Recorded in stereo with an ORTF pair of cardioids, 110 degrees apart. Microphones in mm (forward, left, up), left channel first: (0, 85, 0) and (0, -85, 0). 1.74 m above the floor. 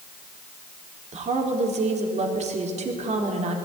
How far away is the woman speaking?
About 4.5 m.